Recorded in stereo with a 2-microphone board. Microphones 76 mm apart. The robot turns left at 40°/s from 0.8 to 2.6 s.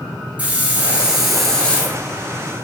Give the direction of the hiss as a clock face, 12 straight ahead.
5 o'clock.